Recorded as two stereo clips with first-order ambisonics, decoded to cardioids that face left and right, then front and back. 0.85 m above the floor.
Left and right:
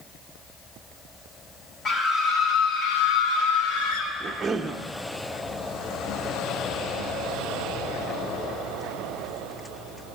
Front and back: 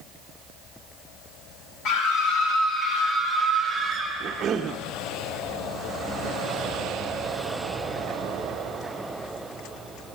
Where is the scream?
25° left, 1.6 m; by 4.1 s 95° left, 2 m.